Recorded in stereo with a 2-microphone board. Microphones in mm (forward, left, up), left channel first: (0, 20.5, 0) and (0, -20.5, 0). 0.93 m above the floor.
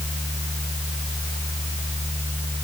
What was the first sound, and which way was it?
Only background noise.